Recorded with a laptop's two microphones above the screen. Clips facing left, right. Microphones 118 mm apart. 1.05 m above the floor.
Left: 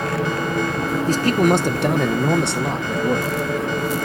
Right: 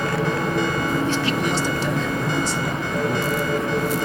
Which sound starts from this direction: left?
A man speaking, at 1.1 s.